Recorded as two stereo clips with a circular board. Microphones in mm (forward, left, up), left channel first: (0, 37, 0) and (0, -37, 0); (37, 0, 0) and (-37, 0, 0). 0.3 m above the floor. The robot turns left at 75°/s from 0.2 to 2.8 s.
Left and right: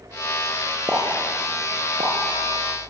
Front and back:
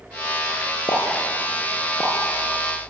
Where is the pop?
15° right, 4 m; by 2.1 s 105° right, 4 m.